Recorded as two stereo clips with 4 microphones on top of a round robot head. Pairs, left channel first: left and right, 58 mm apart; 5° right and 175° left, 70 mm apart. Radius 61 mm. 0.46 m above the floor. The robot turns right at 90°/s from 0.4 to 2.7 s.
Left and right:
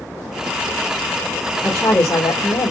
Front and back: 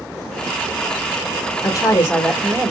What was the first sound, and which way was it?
A woman speaking, straight ahead.